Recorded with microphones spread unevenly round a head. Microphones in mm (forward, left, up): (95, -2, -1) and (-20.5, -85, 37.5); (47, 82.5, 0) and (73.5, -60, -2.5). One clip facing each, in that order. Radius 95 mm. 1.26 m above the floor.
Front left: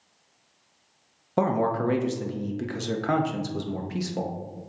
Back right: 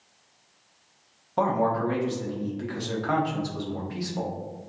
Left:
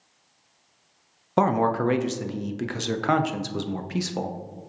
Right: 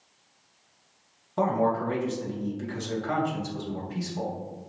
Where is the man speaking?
85° left, 0.6 m.